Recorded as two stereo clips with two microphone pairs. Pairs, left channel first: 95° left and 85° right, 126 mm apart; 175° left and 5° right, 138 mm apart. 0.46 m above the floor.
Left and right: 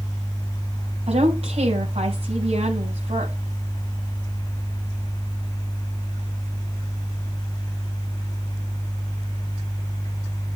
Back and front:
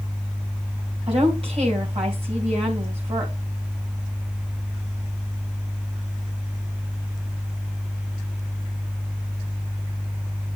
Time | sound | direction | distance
1.1 | a woman speaking | 50° right | 3 m